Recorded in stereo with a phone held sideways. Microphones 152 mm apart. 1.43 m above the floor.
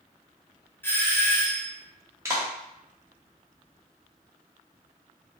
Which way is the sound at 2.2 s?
20° right (ahead or behind).